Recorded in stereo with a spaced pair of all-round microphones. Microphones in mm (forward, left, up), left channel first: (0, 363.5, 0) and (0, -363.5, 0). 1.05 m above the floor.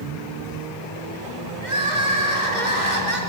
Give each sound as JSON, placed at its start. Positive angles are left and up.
{"t": 1.6, "sound": "crying", "side_deg": -75, "distance_m": 4.0}